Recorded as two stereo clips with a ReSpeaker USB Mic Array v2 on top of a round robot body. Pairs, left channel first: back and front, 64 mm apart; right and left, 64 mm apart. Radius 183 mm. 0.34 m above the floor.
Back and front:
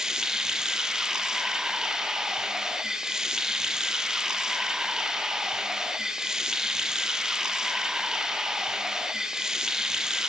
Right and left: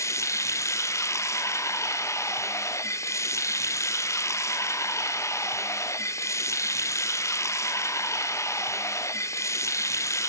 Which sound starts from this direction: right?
Running water, at 0.0 s.